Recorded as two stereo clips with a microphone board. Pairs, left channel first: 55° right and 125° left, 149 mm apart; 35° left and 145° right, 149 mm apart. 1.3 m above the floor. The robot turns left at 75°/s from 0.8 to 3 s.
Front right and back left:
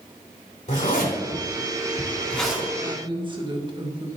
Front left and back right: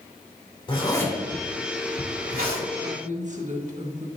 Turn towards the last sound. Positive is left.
turn(degrees=180)